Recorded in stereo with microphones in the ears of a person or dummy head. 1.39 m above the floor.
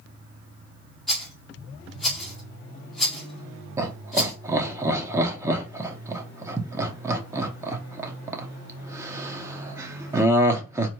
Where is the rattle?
5° left (ahead or behind), 2 m.